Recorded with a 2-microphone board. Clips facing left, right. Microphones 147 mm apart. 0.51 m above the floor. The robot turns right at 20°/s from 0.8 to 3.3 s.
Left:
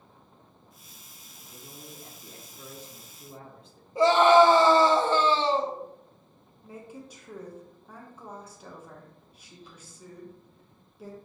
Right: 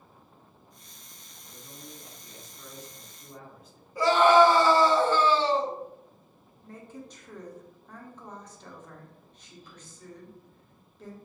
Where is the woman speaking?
10° left (ahead or behind), 0.9 m.